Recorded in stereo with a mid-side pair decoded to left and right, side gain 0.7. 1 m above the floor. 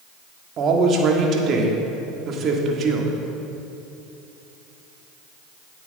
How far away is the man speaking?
About 1.9 m.